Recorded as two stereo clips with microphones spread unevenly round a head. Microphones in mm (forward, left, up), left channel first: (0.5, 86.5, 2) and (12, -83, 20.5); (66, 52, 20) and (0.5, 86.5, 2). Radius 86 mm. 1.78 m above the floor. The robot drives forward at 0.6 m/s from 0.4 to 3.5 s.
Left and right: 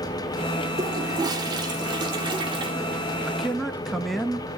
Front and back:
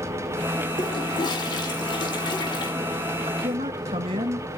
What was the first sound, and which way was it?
A toilet flushing, 20° right.